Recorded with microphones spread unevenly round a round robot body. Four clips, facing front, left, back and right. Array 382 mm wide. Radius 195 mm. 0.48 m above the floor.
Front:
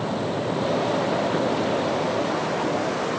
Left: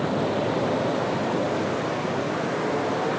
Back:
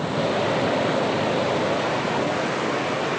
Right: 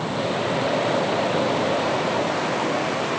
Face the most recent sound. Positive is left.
No sound to turn to.